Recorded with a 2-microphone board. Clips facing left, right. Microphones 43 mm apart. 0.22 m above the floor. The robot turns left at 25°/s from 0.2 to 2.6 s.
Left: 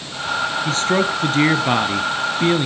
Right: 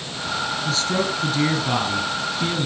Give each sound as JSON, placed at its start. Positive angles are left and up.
{"t": 0.7, "sound": "a man speaking", "azimuth_deg": 110, "distance_m": 2.0}